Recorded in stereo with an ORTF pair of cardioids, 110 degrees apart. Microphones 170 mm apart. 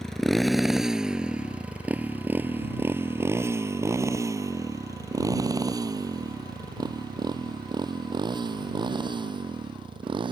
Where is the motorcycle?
5° left; by 10.3 s 30° right.